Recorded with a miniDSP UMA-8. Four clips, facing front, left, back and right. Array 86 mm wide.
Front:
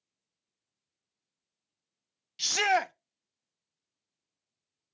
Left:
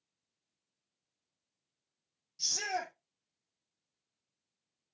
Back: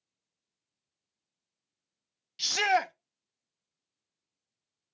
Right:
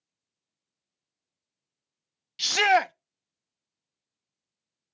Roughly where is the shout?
Right.